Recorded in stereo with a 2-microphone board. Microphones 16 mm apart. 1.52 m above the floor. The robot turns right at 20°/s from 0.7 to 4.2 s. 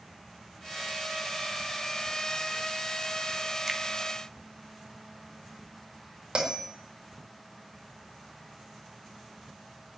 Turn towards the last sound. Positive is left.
turn(degrees=-60)  # may be behind; listen again after turning